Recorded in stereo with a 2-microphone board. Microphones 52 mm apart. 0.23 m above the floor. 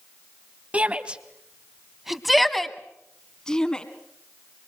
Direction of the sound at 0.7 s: 25° right (ahead or behind).